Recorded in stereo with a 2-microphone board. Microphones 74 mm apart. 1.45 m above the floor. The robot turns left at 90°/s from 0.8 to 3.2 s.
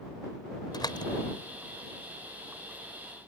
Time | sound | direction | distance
0.7 | a door slam | 70° left (ahead or behind) | ?